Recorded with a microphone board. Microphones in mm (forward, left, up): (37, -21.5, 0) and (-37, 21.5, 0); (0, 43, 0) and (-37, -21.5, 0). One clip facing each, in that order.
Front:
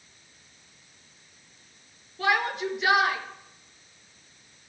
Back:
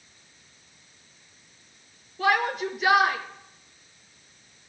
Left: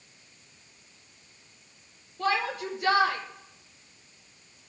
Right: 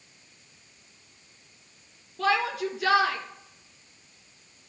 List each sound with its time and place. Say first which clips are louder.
2.2 s a shout: back 2 dB, right 3 dB; 125° right, 4.5 m